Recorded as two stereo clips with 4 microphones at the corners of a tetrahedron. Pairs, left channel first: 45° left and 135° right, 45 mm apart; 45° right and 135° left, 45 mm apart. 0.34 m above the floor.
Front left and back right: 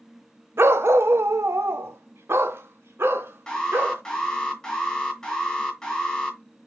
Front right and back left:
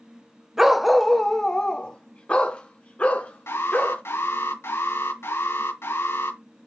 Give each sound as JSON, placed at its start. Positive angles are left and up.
{"t": 0.6, "sound": "a dog barking", "azimuth_deg": -145, "distance_m": 0.7}
{"t": 3.5, "sound": "an alarm", "azimuth_deg": -35, "distance_m": 5.0}